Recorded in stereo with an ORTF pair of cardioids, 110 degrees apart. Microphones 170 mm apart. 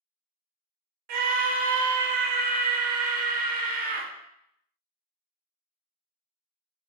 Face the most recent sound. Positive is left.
turn(degrees=-60)